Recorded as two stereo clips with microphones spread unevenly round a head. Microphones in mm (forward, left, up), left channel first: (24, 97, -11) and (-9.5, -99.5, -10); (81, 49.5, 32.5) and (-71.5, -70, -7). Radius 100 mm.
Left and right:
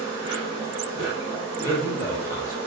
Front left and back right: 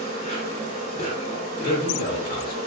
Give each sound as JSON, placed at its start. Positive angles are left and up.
{"t": 0.0, "sound": "an insect", "azimuth_deg": 100, "distance_m": 1.5}
{"t": 1.6, "sound": "a man speaking", "azimuth_deg": 15, "distance_m": 0.6}